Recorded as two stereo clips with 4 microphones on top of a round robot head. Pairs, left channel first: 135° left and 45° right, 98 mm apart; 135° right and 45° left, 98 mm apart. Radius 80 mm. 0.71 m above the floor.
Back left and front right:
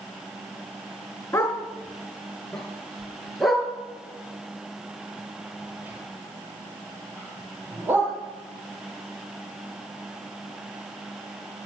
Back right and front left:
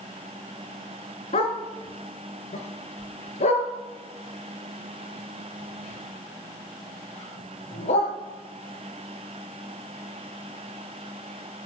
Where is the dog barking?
155° right, 3 m; by 8.1 s 115° right, 6 m.